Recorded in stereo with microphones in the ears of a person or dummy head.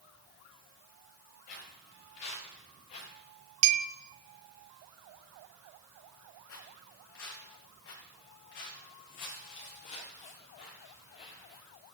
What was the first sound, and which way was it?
Footsteps, 40° left (ahead or behind).